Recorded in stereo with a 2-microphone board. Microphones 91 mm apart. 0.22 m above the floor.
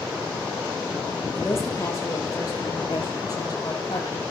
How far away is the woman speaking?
About 7 m.